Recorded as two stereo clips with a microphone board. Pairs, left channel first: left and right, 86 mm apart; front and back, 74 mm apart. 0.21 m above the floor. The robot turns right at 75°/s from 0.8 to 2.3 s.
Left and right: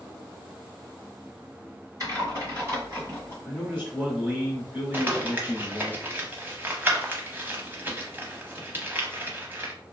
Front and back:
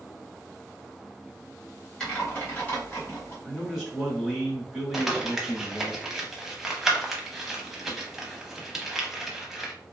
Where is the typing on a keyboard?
70° right, 1.8 m; by 3.4 s 50° right, 1.8 m.